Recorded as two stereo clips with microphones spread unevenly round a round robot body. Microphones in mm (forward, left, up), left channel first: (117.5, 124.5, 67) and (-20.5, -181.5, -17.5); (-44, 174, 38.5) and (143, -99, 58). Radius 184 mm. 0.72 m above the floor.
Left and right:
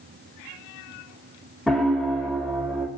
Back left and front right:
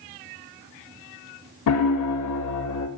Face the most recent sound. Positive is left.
turn(degrees=160)